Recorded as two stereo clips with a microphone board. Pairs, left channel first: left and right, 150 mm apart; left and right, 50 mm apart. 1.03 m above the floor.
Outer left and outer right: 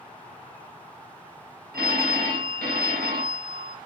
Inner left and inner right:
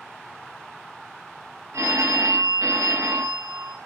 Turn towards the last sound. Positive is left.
turn(degrees=-80)